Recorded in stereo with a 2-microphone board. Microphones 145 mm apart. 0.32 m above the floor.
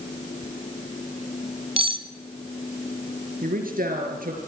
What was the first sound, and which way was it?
Cutlery clinking, 40° right (ahead or behind).